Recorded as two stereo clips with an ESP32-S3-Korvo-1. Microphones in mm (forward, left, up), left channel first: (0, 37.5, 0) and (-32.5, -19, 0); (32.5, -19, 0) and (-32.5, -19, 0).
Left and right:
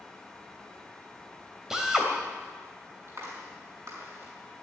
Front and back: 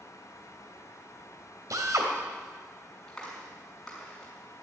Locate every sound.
1.7 s a drill: 160° left, 2.5 m
3.1 s a clap: 85° right, 6 m